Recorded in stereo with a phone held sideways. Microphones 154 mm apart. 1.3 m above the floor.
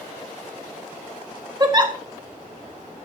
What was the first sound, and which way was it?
A giggle, 30° right (ahead or behind).